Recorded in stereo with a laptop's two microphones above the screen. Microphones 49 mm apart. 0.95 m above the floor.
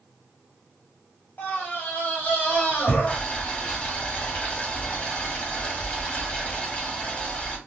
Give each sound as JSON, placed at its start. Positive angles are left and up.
{"t": 1.4, "sound": "a scream", "side_deg": 45, "distance_m": 1.3}
{"t": 3.1, "sound": "boiling", "side_deg": 30, "distance_m": 0.7}